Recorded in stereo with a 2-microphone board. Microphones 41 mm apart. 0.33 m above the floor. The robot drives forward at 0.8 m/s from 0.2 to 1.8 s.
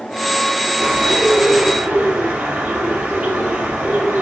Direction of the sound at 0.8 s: 35° right (ahead or behind).